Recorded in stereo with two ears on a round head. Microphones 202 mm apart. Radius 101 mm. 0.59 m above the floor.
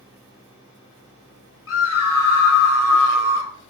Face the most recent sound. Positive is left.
turn(degrees=65)  # may be behind; listen again after turning